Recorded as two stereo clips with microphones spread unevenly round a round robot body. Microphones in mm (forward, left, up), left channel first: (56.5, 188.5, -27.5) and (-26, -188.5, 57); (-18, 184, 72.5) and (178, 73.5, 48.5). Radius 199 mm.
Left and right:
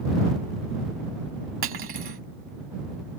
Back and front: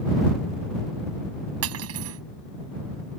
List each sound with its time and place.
1.6 s cutlery clinking: 40° right